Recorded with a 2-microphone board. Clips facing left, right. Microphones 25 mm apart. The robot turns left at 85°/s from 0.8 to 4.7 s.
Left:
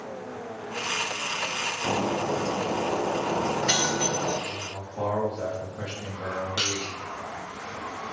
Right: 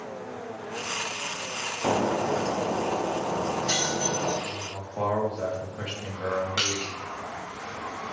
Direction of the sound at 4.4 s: 85° right.